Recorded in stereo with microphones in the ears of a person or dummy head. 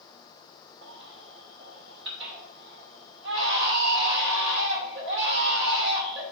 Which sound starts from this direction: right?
A baby crying, at 0.8 s.